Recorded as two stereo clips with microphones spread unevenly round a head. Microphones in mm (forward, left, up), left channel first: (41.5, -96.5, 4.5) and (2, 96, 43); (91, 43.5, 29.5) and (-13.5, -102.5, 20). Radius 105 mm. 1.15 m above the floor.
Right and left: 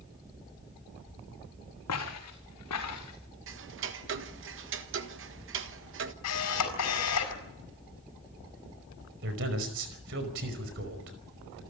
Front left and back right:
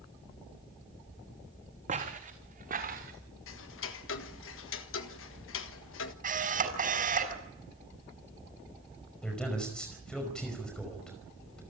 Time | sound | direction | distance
1.9 | footsteps | 75° right | 5 m
3.5 | ticking | 70° left | 1.6 m
6.2 | a camera shutter | 80° right | 5.5 m
9.2 | a man speaking | 140° left | 5 m